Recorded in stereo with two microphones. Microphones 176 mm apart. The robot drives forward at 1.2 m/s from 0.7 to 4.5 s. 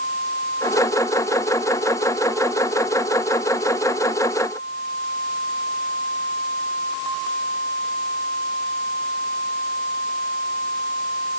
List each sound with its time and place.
Only background noise.